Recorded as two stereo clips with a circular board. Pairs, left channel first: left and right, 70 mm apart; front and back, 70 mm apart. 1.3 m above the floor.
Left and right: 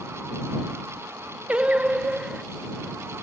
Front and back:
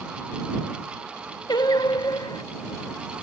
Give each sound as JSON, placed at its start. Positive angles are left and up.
{"t": 1.5, "sound": "singing", "azimuth_deg": -15}